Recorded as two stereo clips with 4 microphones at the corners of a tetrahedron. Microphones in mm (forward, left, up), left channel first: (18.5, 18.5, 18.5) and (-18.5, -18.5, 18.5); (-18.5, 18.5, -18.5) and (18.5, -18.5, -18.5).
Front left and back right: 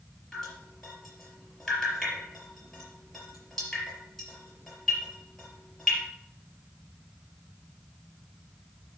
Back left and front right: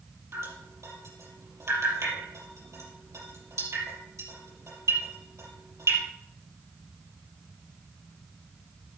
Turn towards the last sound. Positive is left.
turn(degrees=-40)